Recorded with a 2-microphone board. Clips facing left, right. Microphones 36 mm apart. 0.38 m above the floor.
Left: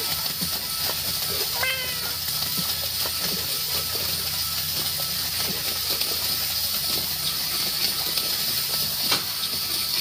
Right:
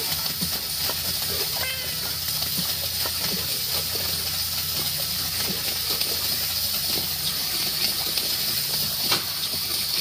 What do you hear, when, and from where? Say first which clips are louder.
1.5 s a cat meowing: left 3 dB; 20° left (ahead or behind)